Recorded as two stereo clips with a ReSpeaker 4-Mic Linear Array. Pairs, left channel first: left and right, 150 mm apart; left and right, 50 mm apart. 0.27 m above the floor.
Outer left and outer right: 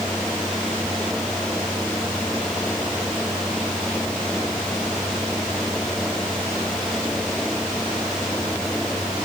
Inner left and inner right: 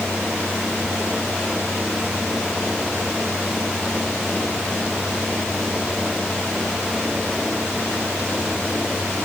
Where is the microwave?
No microwave in this recording.